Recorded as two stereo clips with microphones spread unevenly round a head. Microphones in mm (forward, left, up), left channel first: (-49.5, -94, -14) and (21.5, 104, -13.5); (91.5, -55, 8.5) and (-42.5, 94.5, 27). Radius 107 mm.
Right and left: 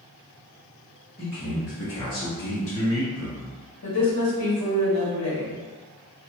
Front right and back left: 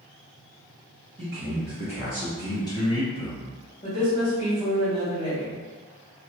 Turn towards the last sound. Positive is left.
turn(degrees=-110)